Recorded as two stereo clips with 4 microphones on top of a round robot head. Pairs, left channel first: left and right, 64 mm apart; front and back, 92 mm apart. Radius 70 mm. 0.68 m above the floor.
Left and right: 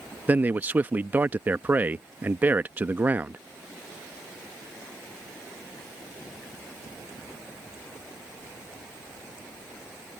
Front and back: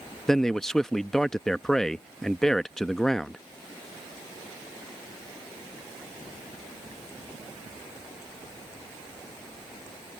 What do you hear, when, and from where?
0.3 s a man speaking: 80° right